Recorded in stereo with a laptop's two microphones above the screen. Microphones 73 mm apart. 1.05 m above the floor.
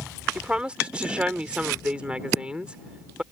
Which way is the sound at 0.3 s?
15° right (ahead or behind).